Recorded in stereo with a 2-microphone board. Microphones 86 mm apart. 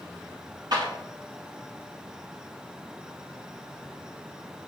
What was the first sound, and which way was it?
A clap, 50° right (ahead or behind).